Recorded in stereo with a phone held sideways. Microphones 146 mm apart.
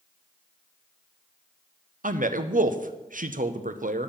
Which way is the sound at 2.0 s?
65° right (ahead or behind).